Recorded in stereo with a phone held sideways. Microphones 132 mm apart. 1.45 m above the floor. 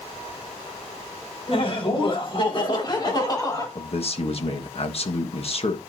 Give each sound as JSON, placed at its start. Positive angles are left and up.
{"t": 1.5, "sound": "laughter", "side_deg": 50, "distance_m": 4.5}
{"t": 3.8, "sound": "a man speaking", "side_deg": 50, "distance_m": 1.5}